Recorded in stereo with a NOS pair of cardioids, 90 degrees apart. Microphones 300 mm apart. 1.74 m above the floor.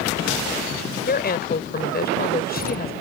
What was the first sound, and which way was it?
A woman speaking, 30° left.